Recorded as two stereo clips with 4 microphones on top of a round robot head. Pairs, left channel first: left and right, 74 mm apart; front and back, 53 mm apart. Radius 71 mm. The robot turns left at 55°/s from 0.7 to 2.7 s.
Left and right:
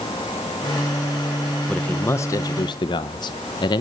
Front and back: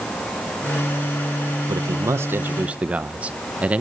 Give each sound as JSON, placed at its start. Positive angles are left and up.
{"t": 1.7, "sound": "a man speaking", "azimuth_deg": 170, "distance_m": 0.8}